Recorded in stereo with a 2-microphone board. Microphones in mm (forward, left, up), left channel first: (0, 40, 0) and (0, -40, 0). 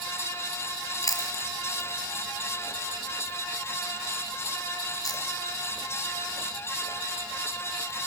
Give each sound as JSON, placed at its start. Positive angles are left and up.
{"t": 1.0, "sound": "chewing", "side_deg": 50, "distance_m": 0.7}